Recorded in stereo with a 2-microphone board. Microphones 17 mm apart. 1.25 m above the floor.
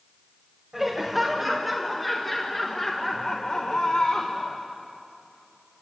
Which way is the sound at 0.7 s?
10° right (ahead or behind).